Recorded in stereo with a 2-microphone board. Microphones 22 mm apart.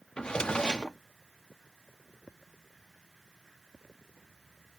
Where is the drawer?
45° left (ahead or behind).